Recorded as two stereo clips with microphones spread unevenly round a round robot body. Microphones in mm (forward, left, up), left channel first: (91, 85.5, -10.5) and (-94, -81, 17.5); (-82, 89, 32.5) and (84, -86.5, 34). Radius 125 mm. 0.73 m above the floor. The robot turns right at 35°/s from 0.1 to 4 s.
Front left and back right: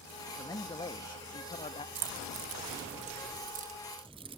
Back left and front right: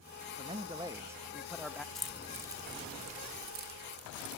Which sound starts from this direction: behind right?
Keys jangling, at 1.9 s.